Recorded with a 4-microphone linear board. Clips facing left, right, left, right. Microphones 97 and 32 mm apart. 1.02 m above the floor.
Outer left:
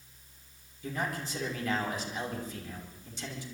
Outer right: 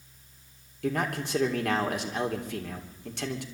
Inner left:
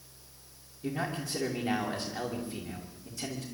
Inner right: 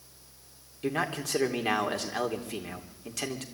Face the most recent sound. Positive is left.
turn(degrees=-70)  # may be behind; listen again after turning